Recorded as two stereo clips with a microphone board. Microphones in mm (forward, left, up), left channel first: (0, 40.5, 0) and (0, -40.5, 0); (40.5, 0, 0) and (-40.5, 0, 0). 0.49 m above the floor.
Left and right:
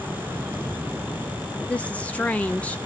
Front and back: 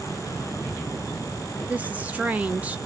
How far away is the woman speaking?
About 0.8 m.